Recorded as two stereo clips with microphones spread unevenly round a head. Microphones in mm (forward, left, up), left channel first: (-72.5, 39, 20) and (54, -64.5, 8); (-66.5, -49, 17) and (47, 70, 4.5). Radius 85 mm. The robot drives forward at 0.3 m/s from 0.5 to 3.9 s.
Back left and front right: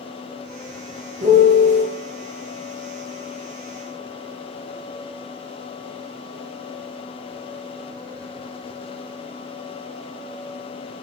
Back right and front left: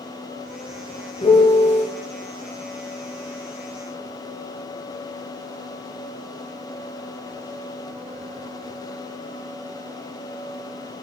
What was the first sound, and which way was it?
A piano, 75° right.